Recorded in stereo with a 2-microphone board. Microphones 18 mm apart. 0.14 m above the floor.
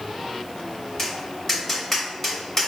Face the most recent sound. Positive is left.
turn(degrees=20)  # may be behind; listen again after turning